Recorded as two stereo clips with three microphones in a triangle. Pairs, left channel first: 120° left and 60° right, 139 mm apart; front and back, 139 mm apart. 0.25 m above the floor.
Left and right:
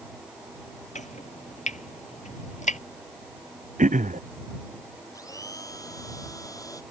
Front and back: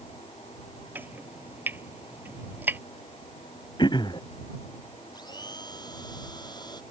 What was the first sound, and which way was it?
Chopping, 105° left.